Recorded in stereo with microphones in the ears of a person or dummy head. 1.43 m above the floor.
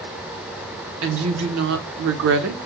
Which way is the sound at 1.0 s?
70° right (ahead or behind).